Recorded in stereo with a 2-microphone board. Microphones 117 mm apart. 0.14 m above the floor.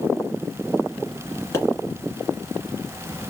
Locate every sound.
1.5 s a pop: 20° left (ahead or behind), 1.8 m